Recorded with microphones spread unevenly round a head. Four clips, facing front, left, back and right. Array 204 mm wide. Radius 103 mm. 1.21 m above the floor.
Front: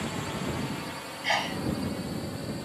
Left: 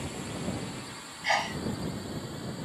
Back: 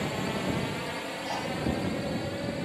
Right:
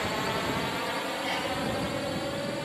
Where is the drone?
115° right.